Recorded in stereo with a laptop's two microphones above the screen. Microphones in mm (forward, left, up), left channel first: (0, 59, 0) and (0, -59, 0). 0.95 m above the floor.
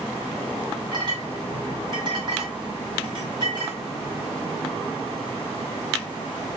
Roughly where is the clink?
Right.